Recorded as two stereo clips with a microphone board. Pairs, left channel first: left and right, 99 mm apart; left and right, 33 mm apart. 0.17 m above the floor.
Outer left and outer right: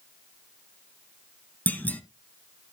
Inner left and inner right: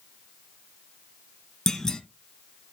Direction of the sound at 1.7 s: 15° left (ahead or behind).